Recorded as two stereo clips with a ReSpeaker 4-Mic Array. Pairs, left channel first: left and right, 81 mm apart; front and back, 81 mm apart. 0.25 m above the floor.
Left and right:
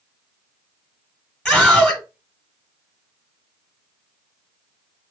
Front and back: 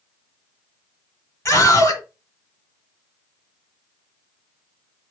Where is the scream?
5° left, 1.2 m.